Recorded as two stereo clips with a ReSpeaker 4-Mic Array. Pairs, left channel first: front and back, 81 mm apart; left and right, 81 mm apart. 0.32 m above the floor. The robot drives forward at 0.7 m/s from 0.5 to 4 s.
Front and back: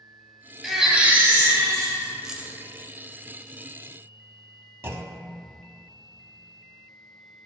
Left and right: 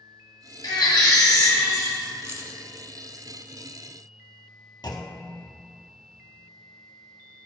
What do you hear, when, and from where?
0.6 s a baby crying: 90° left, 0.9 m; by 2.1 s 145° left, 1.4 m
2.2 s keys jangling: 100° right, 0.6 m; by 2.6 s 135° right, 0.7 m
4.8 s a clunk: 125° left, 0.5 m